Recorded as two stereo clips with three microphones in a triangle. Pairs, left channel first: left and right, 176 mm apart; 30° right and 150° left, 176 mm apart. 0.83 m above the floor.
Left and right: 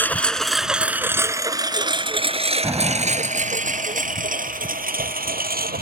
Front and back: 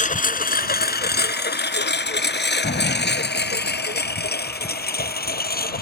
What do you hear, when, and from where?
0.0 s a lawn mower: 10° left; by 5.8 s 60° right
2.6 s an explosion: 20° right